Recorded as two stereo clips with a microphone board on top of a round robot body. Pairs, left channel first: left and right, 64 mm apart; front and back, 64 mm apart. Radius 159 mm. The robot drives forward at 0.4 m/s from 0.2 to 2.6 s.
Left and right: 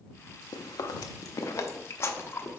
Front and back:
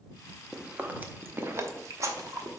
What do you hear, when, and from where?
0.5 s chewing: 100° left, 0.7 m; by 2.6 s 145° left, 1.2 m